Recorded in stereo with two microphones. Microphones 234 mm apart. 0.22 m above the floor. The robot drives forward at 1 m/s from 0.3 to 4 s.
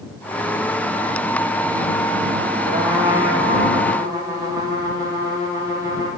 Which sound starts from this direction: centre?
A trumpet, at 2.6 s.